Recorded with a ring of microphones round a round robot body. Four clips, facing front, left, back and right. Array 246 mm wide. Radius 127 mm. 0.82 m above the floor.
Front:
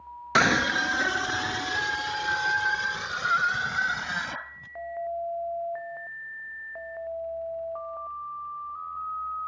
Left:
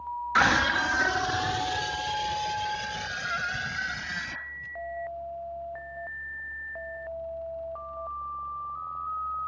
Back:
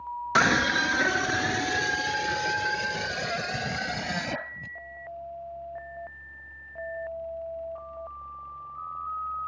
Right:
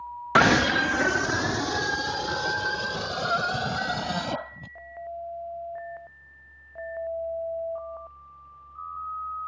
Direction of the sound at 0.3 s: 80° right.